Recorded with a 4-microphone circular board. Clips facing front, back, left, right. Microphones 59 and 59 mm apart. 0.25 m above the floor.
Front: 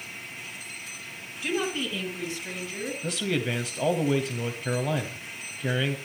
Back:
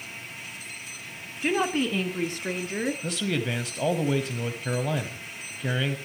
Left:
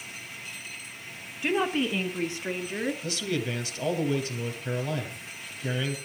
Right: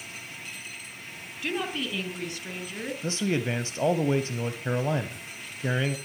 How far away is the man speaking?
About 1.2 m.